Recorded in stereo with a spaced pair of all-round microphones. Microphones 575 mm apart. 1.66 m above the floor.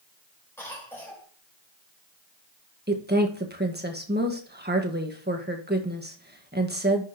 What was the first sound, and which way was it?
A cough, 5° left (ahead or behind).